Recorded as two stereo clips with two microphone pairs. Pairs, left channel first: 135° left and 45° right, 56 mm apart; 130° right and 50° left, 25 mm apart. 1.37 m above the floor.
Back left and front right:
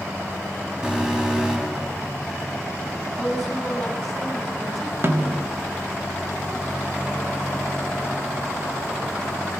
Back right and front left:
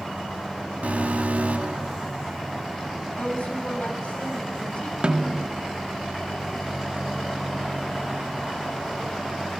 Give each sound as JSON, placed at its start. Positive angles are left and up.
{"t": 0.8, "sound": "an alarm", "azimuth_deg": 35, "distance_m": 6.0}
{"t": 3.2, "sound": "a woman speaking", "azimuth_deg": -140, "distance_m": 9.0}
{"t": 5.0, "sound": "a snare drum", "azimuth_deg": 5, "distance_m": 3.0}